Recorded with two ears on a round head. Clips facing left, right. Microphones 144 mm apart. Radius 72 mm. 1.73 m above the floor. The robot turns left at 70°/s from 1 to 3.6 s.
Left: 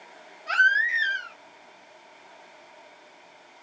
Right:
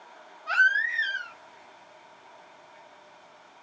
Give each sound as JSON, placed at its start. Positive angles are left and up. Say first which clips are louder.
{"t": 0.5, "sound": "a baby crying", "louder": "left 1 dB", "side_deg": 20, "distance_m": 0.8}